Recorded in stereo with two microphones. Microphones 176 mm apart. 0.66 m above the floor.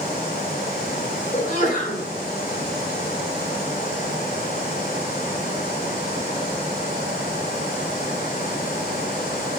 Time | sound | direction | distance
1.3 | a sneeze | 50° left (ahead or behind) | 2.5 m